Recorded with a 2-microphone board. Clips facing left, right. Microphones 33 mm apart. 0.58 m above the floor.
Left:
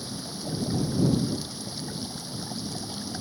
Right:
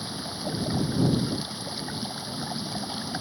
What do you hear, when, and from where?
0.0 s running water: 25° right (ahead or behind)